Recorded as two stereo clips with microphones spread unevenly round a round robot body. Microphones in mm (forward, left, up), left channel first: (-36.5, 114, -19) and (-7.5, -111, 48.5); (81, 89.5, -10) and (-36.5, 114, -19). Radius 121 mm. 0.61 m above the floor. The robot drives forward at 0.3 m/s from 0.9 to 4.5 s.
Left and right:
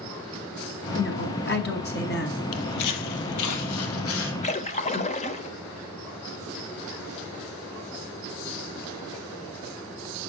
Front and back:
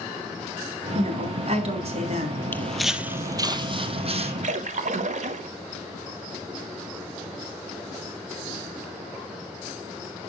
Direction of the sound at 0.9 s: 135° left.